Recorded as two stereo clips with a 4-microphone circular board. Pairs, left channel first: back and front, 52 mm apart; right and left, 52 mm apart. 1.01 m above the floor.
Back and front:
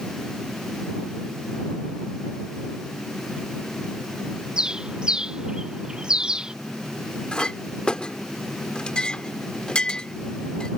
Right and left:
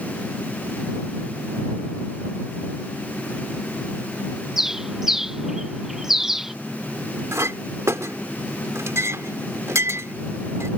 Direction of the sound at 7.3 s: 110° left.